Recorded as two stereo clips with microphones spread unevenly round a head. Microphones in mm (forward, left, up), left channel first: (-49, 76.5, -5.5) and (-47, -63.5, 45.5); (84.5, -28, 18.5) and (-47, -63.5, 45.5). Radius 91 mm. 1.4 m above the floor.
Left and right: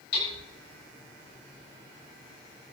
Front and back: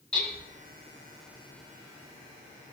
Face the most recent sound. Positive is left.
turn(degrees=100)